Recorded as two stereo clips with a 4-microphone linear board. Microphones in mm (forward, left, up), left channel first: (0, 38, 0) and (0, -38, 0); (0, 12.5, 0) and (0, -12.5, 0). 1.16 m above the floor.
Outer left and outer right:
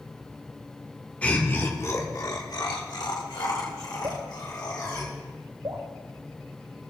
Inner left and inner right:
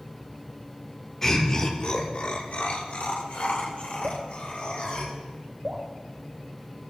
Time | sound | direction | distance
1.2 | laughter | 20° left (ahead or behind) | 1.8 m
4.0 | dripping | 70° right (ahead or behind) | 1.8 m